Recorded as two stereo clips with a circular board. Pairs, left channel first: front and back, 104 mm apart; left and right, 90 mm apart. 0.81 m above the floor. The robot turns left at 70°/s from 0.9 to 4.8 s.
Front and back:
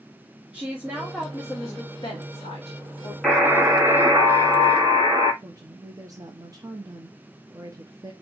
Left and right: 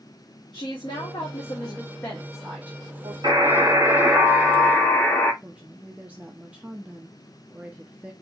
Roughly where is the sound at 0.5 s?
Left.